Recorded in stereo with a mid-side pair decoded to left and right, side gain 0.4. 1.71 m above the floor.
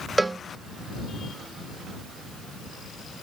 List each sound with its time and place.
0.2 s a cowbell: 20° right